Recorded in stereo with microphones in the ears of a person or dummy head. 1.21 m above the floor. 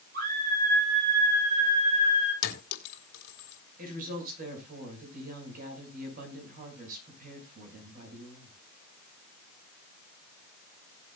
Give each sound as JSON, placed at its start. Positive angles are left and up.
{"t": 0.1, "sound": "a scream", "side_deg": -45, "distance_m": 9.5}
{"t": 2.4, "sound": "a clink", "side_deg": 60, "distance_m": 4.0}
{"t": 3.8, "sound": "a woman speaking", "side_deg": -45, "distance_m": 6.5}